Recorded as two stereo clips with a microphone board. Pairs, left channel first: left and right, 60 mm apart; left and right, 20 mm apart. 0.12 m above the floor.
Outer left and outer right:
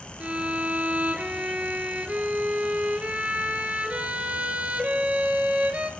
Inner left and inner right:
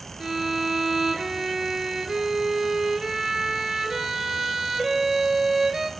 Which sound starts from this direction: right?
A violin, at 0.2 s.